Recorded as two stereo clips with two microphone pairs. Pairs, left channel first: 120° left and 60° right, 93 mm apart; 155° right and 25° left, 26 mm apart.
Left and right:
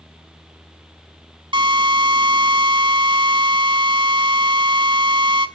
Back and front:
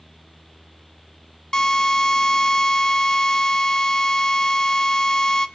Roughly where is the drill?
Right.